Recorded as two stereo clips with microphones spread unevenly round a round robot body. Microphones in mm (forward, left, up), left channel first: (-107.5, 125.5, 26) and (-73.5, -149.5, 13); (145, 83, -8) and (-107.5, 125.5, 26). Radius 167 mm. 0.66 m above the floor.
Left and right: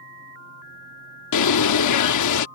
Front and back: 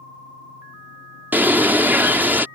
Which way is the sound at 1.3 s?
85° left.